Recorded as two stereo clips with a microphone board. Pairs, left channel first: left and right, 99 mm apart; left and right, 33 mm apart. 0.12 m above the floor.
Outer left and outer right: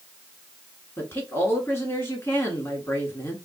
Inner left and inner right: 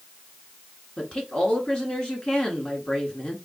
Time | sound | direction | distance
1.0 | a woman speaking | 25° left (ahead or behind) | 1.6 m